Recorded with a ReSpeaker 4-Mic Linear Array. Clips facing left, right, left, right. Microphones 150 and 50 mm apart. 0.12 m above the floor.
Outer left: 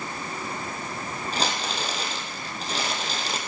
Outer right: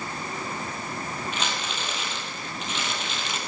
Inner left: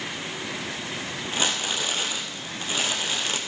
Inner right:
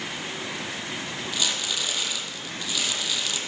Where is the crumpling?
35° left (ahead or behind), 2 m.